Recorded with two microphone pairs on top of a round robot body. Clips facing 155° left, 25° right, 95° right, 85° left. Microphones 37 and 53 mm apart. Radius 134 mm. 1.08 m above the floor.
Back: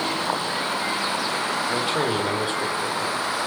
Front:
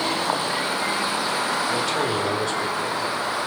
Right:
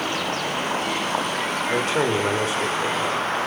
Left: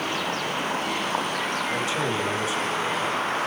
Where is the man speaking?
130° right, 5 m.